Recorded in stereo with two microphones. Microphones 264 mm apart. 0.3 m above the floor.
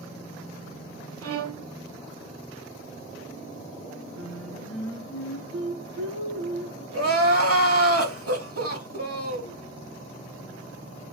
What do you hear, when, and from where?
1.2 s a violin: 60° right (ahead or behind), 0.6 m
4.2 s singing: 55° left (ahead or behind), 1.9 m
6.9 s crying: 60° right (ahead or behind), 0.9 m